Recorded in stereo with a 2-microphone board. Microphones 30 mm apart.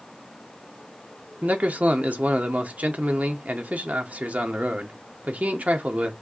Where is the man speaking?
60° right (ahead or behind), 0.8 m.